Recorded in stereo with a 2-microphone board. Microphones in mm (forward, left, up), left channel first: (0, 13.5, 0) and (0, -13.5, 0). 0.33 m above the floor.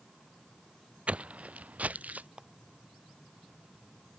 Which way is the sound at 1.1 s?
50° right (ahead or behind).